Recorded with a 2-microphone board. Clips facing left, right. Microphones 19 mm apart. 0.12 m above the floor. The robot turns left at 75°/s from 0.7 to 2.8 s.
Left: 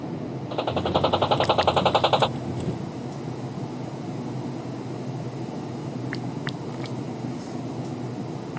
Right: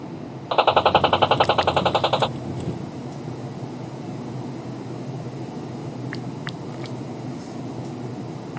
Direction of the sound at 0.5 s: 70° right.